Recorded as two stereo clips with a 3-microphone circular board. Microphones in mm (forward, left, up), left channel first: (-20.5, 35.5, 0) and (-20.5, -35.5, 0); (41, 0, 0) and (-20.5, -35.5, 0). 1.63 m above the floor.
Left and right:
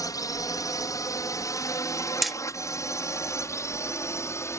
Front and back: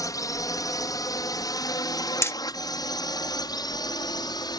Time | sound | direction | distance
0.0 | a drone | 60° left | ?
2.2 | hammering | straight ahead | ?